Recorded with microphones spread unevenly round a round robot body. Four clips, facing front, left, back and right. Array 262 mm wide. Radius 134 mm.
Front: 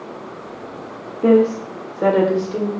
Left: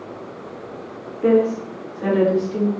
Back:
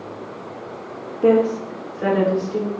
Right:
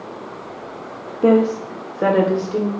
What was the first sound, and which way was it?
A woman speaking, 100° right.